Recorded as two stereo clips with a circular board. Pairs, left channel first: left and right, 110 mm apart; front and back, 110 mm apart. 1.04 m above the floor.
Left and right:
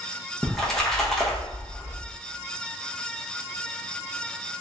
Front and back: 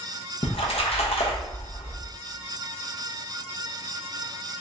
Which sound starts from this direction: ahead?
A splash, at 0.4 s.